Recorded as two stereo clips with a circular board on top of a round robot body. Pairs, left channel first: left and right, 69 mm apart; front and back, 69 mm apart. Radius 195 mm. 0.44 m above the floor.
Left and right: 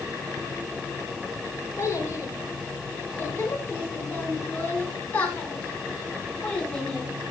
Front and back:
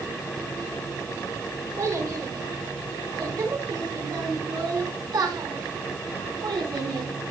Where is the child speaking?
145° left, 7 m; by 7.1 s 170° left, 6 m.